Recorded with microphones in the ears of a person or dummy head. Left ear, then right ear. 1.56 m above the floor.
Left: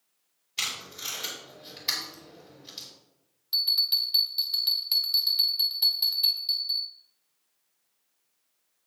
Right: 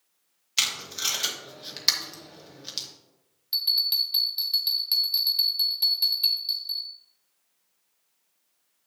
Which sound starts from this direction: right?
Tape being pulled, at 0.6 s.